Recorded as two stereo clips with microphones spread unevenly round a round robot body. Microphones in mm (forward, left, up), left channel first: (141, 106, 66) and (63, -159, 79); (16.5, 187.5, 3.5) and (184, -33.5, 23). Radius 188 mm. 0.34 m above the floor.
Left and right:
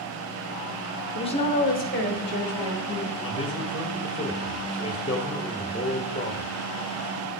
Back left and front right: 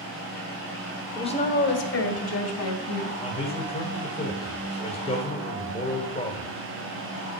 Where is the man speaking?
115° left, 1.6 m.